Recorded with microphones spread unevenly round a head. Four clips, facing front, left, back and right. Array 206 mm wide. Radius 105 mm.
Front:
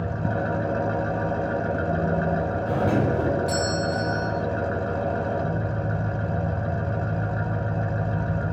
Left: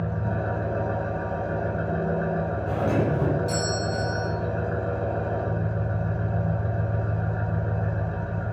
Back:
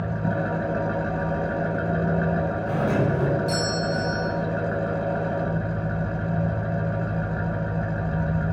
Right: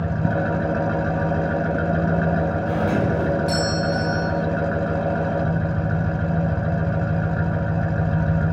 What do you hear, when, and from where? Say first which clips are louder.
0.0 s an engine running: right 6 dB, even; 85° right, 1.3 m
2.7 s a doorbell: even, front 1 dB; 25° right, 5 m